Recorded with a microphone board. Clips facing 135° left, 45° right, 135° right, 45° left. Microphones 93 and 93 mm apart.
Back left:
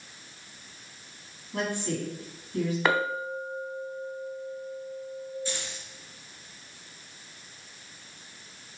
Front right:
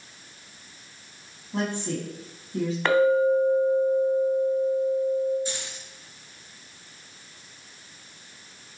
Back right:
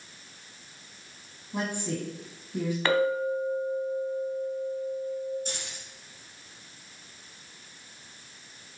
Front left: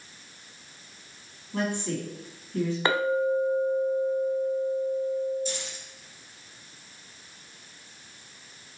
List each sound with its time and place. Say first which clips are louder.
1.5 s a woman speaking: front right 2 dB, front left 2 dB; 75° right, 1.3 m
2.9 s a clink: front right 12 dB, even; 60° left, 0.7 m
5.5 s keys jangling: front right 1 dB, front left 4 dB; 115° right, 1.9 m